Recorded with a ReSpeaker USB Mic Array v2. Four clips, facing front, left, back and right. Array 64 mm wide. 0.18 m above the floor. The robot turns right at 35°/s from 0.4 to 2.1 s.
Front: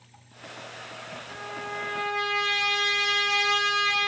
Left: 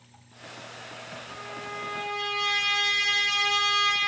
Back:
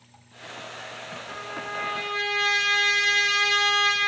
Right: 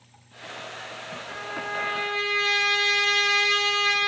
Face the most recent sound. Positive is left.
turn(degrees=-110)